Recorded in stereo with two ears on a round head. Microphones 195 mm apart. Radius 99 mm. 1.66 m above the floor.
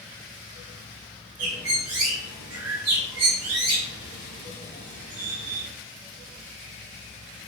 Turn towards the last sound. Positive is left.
turn(degrees=-75)  # may be behind; listen again after turning